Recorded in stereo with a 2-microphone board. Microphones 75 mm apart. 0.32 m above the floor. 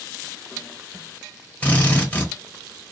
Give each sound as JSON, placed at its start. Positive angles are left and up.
{"t": 1.6, "sound": "a drill", "side_deg": 20, "distance_m": 1.1}